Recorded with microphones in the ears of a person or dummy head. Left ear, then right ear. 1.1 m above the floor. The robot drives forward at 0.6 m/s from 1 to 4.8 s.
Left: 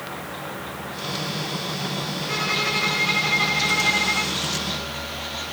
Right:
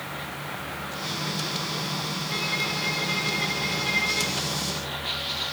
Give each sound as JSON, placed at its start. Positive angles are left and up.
{"t": 2.3, "sound": "a violin", "side_deg": 60, "distance_m": 2.5}